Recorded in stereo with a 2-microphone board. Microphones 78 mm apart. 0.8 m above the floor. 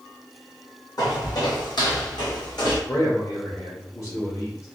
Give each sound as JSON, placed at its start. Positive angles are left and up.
{"t": 1.0, "sound": "footsteps", "side_deg": 55, "distance_m": 1.7}
{"t": 2.9, "sound": "a man speaking", "side_deg": 40, "distance_m": 1.2}